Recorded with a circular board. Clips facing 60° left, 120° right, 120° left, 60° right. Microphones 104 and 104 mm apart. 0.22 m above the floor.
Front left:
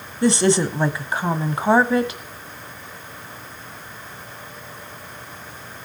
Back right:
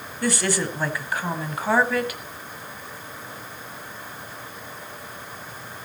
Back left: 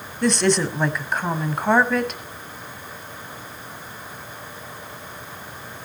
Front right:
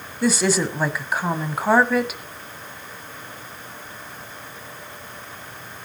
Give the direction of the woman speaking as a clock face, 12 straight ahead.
11 o'clock.